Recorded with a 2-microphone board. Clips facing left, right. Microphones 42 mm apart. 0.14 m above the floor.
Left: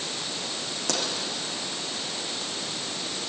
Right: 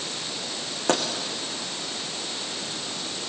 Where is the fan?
I don't hear a fan.